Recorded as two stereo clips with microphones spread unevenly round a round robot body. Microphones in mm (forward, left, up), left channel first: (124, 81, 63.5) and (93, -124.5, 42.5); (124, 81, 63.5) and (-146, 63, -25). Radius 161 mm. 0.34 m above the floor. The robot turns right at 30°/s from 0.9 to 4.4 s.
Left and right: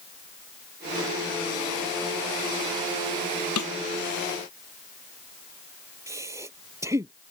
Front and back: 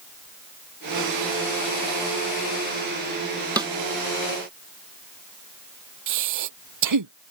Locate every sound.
3.6 s a snare drum: 110° left
6.1 s breathing: straight behind